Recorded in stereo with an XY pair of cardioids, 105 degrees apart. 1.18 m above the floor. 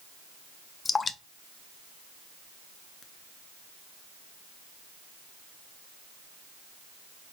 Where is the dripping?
40° left, 0.5 m.